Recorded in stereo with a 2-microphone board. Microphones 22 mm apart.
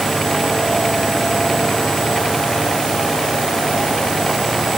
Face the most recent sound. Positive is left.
No sound to turn to.